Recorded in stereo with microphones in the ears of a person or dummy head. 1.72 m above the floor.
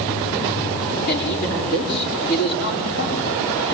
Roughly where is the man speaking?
Left.